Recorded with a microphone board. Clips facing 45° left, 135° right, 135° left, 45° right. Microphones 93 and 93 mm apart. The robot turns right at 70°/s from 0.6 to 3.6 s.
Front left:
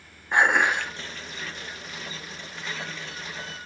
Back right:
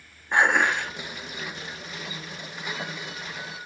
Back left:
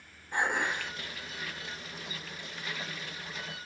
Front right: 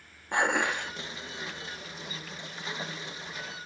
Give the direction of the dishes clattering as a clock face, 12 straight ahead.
1 o'clock.